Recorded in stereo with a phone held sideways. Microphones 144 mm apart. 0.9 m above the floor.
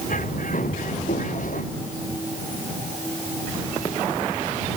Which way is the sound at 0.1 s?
65° left (ahead or behind).